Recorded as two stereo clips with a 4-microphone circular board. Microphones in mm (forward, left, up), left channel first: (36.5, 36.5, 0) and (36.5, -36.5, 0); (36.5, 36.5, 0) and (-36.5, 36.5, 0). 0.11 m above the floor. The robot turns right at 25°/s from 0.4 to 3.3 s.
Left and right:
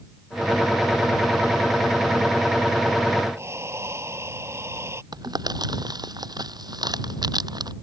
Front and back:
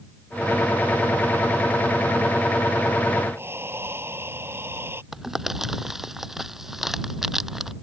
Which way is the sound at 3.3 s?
130° right.